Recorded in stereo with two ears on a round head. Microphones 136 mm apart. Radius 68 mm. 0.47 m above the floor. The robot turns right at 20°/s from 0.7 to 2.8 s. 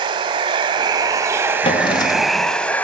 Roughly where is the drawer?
Left.